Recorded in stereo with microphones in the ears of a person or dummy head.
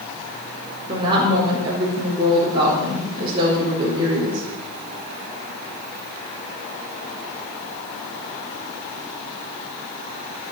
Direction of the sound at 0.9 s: 25° right (ahead or behind).